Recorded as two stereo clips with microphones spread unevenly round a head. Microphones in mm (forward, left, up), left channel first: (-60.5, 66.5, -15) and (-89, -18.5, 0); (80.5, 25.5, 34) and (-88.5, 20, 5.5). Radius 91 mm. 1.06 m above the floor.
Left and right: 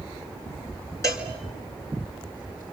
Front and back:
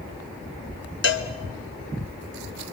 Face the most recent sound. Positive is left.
turn(degrees=0)